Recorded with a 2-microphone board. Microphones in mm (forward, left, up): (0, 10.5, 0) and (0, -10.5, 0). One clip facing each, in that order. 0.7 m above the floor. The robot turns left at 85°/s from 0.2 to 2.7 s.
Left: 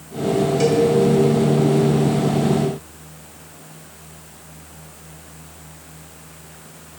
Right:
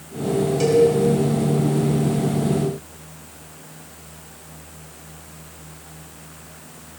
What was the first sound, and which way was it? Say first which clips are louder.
A cowbell: right 3 dB; 10° left (ahead or behind).